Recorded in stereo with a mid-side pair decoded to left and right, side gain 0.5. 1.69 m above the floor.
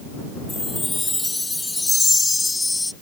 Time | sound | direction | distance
0.5 | a chime | 15° left | ?